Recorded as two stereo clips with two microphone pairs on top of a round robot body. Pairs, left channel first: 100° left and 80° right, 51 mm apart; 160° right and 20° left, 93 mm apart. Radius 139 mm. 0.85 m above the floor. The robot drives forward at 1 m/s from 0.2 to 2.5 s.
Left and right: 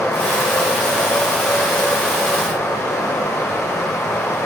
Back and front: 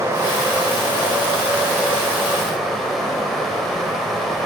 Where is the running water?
80° left, 4.5 m; by 4.5 s 110° left, 4.5 m.